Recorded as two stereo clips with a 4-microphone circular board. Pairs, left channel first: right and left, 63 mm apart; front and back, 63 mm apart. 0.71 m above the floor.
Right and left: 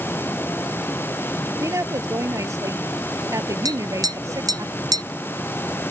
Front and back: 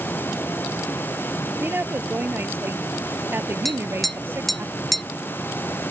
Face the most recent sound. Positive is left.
turn(degrees=90)